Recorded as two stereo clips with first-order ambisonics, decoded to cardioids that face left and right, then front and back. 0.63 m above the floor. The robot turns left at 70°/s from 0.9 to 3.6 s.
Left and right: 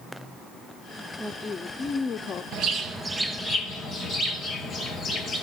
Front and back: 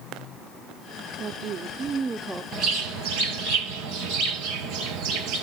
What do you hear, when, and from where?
1.2 s a woman speaking: 175° right, 0.7 m; by 2.4 s 100° left, 0.7 m
2.5 s a bird: 130° right, 3 m; by 5.4 s 155° left, 3 m